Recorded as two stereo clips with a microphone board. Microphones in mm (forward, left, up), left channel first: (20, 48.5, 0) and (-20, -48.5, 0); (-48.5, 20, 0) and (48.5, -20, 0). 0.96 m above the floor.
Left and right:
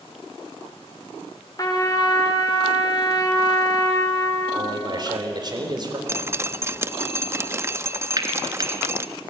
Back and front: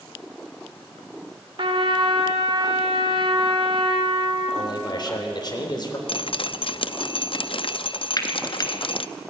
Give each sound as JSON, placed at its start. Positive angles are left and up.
{"t": 1.6, "sound": "a trumpet", "azimuth_deg": 15, "distance_m": 2.0}
{"t": 4.5, "sound": "a man speaking", "azimuth_deg": -160, "distance_m": 3.5}
{"t": 6.1, "sound": "dripping", "azimuth_deg": -175, "distance_m": 0.5}
{"t": 8.2, "sound": "frying", "azimuth_deg": -160, "distance_m": 1.8}